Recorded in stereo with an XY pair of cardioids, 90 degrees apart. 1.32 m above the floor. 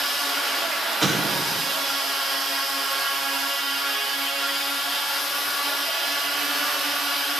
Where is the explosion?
15° right, 4.5 m.